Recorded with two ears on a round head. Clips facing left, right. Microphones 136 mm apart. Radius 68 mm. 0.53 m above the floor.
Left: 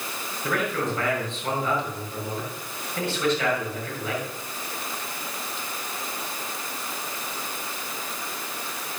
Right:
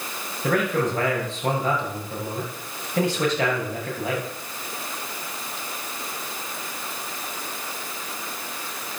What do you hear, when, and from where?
0.4 s a man speaking: 35° right (ahead or behind), 7.5 m